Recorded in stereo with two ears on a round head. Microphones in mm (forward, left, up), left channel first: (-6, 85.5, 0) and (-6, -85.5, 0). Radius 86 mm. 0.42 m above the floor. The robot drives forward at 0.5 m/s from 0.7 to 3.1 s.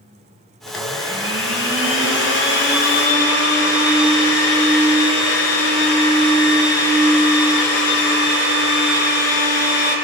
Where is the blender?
75° left (ahead or behind), 4.5 m; by 9.9 s 65° left (ahead or behind), 4.5 m.